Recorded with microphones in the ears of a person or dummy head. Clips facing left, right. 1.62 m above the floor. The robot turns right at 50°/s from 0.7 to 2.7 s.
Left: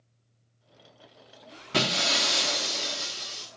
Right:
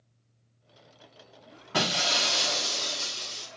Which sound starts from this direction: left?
Breaking glass, at 1.7 s.